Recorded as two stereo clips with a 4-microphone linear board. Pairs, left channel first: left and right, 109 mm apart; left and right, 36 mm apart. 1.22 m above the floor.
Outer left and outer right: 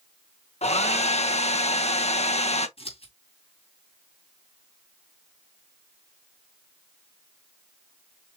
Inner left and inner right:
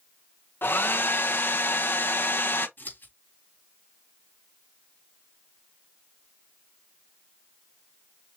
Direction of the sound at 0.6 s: 80° left.